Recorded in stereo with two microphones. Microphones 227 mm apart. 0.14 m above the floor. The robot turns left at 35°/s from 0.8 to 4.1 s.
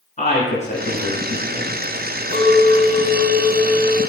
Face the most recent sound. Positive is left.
turn(degrees=-140)